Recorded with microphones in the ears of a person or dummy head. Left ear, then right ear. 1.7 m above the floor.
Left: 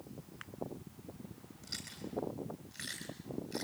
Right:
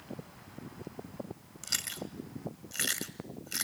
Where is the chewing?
40° right (ahead or behind), 2 m.